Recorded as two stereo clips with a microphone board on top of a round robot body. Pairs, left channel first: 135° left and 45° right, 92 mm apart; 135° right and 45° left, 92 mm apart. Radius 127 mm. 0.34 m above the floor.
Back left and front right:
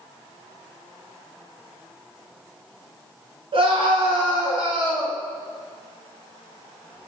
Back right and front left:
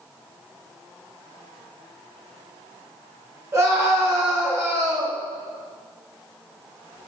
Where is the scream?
20° right, 5.5 m.